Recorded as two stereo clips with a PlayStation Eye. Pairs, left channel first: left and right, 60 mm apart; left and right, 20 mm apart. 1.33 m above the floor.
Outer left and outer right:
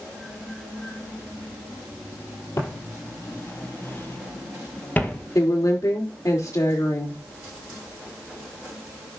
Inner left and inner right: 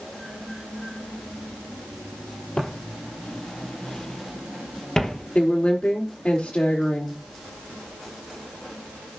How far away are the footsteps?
About 2.5 m.